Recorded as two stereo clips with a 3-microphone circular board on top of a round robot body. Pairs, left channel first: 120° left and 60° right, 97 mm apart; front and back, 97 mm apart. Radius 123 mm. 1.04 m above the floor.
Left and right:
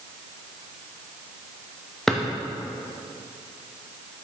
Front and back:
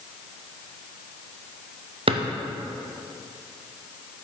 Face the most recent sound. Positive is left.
turn(degrees=-155)